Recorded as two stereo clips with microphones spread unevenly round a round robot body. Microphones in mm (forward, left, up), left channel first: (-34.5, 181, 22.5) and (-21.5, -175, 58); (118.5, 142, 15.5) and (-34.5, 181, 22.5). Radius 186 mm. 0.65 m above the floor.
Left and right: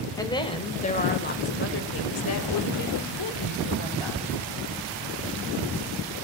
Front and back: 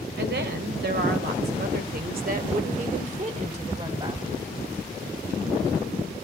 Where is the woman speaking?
170° left, 2.5 m; by 4.3 s 110° left, 3 m.